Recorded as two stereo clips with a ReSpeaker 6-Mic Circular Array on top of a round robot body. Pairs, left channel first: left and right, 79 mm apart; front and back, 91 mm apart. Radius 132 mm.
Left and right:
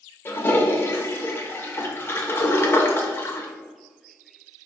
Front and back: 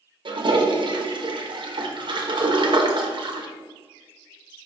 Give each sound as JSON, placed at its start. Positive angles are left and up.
{"t": 0.2, "sound": "a toilet flushing", "azimuth_deg": 150, "distance_m": 1.1}